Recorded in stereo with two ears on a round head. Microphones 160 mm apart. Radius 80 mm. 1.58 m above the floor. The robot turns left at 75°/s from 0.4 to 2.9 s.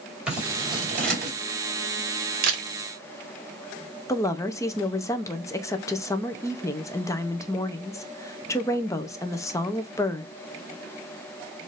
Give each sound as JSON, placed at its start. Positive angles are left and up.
{"t": 0.3, "sound": "scissors", "side_deg": -5, "distance_m": 2.5}
{"t": 2.4, "sound": "a camera shutter", "side_deg": -55, "distance_m": 1.2}
{"t": 4.1, "sound": "a woman speaking", "side_deg": 15, "distance_m": 0.6}